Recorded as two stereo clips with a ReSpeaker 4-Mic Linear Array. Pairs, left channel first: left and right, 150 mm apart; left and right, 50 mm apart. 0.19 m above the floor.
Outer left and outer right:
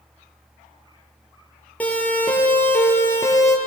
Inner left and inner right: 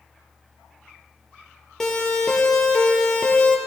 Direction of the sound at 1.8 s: 10° left (ahead or behind).